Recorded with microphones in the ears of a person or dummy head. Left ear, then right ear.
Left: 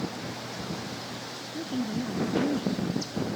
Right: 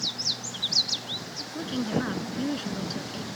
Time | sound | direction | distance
1.5 | a woman speaking | 55° right (ahead or behind) | ?